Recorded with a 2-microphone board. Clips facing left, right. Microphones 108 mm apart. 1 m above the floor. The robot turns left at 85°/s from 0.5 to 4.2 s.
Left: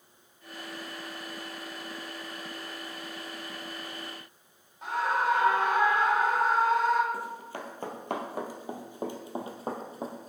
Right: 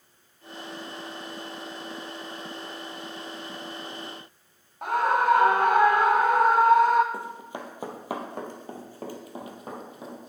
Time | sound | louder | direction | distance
4.8 | a scream | right 5 dB | 55° right (ahead or behind) | 0.5 m
7.1 | running footsteps | right 1 dB | 25° right (ahead or behind) | 1.8 m